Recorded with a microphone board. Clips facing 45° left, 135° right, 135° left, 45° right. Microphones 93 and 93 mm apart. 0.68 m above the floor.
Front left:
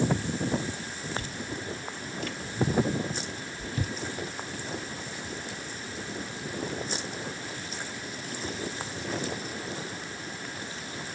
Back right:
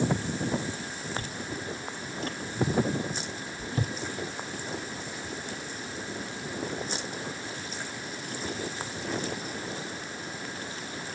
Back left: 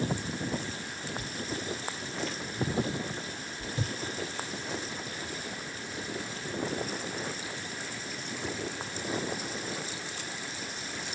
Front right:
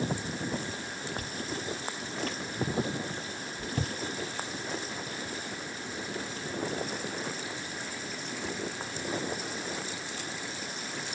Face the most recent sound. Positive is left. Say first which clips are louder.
# even, back left 2 dB
turn(degrees=-80)